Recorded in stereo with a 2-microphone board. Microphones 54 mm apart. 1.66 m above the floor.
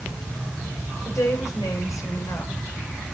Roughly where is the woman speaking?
Left.